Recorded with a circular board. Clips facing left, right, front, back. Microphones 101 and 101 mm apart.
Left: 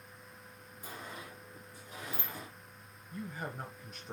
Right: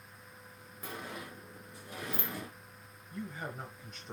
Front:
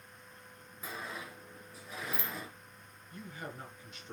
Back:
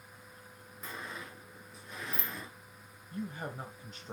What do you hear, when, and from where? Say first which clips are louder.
0.8 s a sliding door: right 3 dB, front 1 dB; 90° right, 1.2 m
3.1 s a man speaking: even, back 5 dB; 175° left, 1.1 m